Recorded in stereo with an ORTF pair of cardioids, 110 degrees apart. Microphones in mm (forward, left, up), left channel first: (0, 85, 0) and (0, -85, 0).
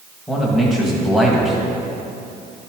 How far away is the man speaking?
About 1.9 m.